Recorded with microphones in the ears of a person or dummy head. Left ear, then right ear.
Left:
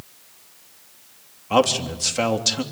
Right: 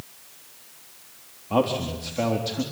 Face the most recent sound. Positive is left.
turn(degrees=65)  # may be behind; listen again after turning